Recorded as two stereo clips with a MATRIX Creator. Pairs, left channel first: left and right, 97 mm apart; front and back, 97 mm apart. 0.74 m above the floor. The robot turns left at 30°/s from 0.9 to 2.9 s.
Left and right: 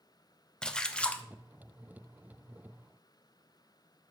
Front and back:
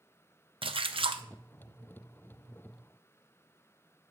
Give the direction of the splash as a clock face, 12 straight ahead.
6 o'clock.